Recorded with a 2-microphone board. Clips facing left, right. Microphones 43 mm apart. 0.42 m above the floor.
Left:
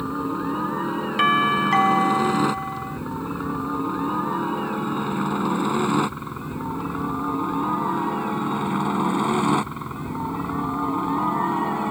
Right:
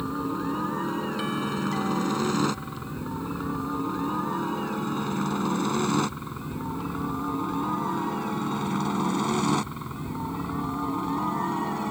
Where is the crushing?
No crushing in this recording.